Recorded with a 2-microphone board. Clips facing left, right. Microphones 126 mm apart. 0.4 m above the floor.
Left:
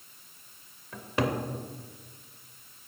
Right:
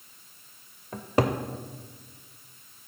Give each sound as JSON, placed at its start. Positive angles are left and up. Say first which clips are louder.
{"t": 0.9, "sound": "a cupboard door", "louder": "right 4 dB", "side_deg": -40, "distance_m": 0.5}